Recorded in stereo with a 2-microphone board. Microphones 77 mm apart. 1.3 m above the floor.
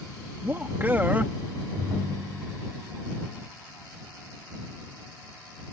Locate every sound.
0.4 s a man speaking: 25° right (ahead or behind)
1.8 s a ringtone: 35° right (ahead or behind)